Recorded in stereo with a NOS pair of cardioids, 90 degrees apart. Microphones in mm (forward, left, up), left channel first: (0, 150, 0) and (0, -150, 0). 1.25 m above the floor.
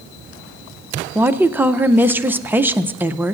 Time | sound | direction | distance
1.1 | a woman speaking | 5° right | 0.6 m